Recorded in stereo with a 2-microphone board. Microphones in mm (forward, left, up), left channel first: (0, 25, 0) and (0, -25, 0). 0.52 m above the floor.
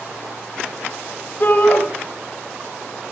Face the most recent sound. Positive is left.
turn(degrees=40)  # may be behind; listen again after turning